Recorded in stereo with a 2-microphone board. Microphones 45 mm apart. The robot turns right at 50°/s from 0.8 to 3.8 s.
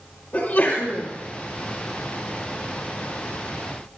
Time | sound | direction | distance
0.3 | a sneeze | 45° left (ahead or behind) | 2.5 m